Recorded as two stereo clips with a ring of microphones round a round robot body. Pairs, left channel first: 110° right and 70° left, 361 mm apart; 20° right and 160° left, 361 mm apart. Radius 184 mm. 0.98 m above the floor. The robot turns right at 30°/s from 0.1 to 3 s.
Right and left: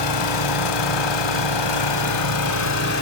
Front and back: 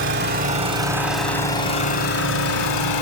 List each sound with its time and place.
0.0 s an engine running: 145° right, 1.6 m; by 3.0 s 60° right, 1.6 m